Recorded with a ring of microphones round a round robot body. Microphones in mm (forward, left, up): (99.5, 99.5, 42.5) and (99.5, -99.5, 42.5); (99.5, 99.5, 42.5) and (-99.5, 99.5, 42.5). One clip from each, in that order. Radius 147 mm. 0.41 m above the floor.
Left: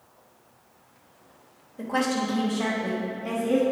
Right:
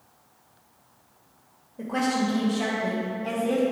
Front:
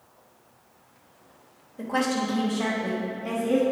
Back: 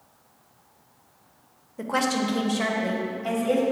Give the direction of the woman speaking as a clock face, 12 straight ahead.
7 o'clock.